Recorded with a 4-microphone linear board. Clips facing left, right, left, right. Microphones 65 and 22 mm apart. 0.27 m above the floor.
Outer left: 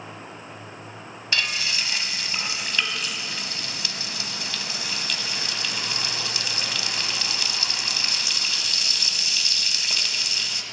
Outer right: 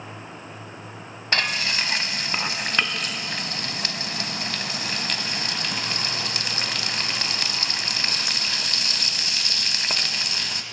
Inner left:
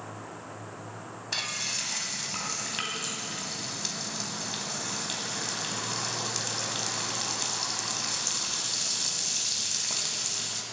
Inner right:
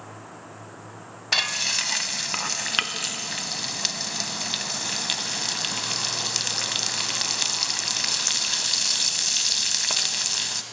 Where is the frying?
50° right (ahead or behind), 0.6 m.